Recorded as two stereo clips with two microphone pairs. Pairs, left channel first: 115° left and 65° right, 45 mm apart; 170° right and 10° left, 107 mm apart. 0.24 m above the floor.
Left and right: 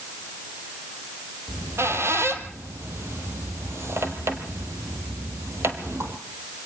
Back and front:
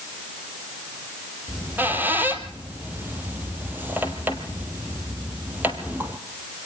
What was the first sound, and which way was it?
A squeak, 60° right.